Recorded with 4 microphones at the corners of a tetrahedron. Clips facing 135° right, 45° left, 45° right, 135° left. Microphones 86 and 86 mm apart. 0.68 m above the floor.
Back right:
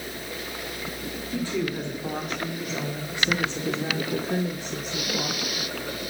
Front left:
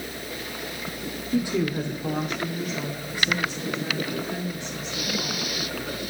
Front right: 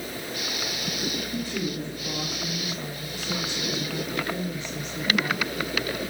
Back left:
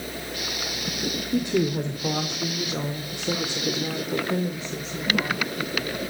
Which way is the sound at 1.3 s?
120° left.